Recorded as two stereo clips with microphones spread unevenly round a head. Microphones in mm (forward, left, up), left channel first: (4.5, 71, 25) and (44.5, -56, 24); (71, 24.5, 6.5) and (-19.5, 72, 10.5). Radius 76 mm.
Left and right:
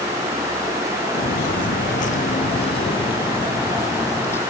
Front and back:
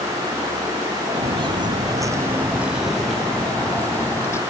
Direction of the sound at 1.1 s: 140° left.